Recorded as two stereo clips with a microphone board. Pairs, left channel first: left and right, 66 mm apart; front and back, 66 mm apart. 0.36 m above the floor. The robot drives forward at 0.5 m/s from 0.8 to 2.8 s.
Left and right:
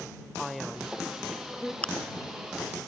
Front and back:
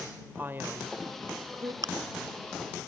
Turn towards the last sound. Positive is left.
turn(degrees=170)